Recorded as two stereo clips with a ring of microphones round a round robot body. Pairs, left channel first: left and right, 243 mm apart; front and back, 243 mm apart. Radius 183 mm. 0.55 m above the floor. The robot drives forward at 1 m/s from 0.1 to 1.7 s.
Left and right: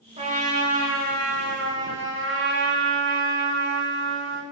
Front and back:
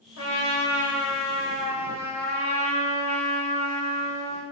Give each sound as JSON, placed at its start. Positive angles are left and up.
{"t": 0.2, "sound": "a trumpet", "azimuth_deg": -30, "distance_m": 2.5}